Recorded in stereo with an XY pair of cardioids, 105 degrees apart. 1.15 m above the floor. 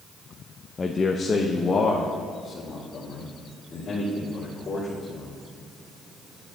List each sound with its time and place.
0.8 s a man speaking: 30° left, 0.6 m; by 5.4 s 45° left, 3 m